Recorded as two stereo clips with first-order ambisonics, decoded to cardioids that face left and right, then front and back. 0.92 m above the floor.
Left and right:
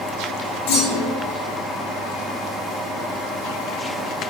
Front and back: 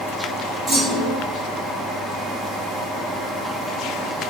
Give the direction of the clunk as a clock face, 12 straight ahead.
8 o'clock.